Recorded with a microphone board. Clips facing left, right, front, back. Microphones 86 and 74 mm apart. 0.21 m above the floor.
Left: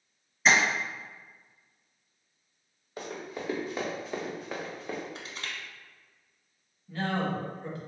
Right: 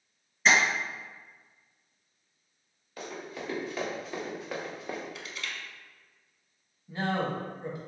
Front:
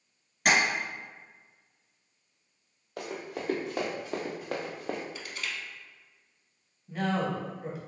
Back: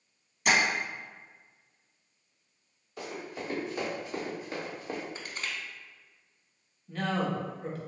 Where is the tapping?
5° left, 1.8 m.